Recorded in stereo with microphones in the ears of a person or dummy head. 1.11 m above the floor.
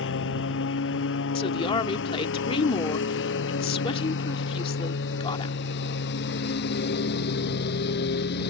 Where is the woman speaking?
30° left (ahead or behind).